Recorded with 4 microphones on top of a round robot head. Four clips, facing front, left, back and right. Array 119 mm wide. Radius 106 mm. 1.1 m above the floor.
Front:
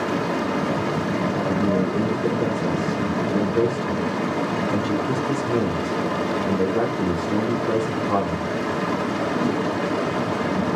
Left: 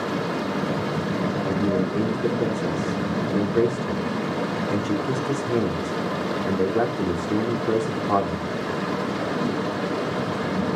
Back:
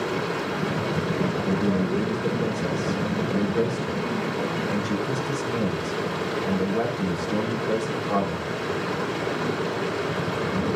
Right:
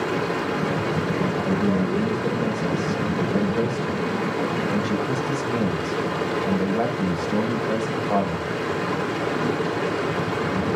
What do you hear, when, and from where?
0.0 s running water: 25° left, 3.5 m
1.4 s a man speaking: 60° left, 3 m